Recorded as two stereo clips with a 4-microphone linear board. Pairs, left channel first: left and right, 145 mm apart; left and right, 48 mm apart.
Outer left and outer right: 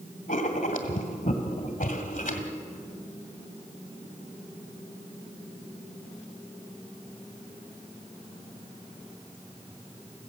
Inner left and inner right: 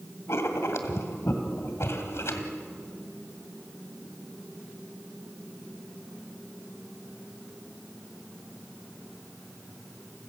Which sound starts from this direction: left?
Writing, at 0.3 s.